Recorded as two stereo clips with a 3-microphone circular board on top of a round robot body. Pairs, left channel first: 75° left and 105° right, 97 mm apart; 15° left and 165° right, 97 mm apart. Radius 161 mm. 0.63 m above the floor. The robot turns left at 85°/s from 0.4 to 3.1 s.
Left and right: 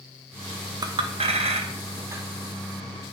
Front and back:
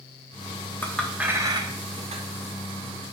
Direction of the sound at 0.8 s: 55° right.